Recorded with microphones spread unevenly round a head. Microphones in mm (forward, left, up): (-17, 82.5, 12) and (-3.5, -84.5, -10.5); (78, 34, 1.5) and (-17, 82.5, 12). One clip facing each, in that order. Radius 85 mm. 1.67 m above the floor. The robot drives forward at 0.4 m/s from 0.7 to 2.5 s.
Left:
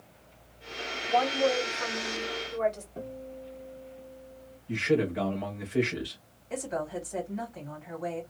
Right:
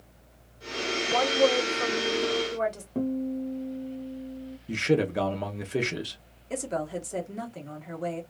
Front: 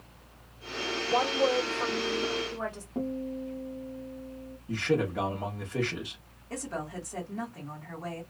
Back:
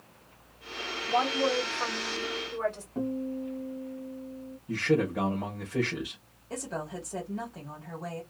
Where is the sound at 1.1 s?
95° right, 1.8 m; by 2.9 s 115° right, 1.9 m.